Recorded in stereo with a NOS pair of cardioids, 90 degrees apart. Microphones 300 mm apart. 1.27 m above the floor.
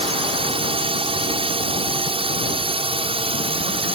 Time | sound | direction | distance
0.0 | a drone | 20° right | ?